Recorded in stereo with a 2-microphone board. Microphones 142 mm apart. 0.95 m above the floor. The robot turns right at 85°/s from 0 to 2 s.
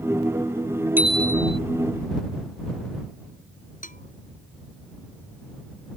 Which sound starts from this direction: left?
A bell, at 3.8 s.